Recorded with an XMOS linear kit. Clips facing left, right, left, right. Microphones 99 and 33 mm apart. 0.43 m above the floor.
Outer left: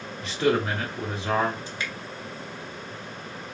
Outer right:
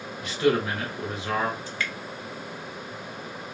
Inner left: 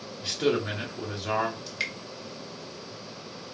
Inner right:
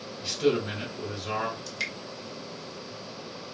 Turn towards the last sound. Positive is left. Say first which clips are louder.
# outer right 1 dB, inner left 1 dB
turn(degrees=20)  # may be behind; listen again after turning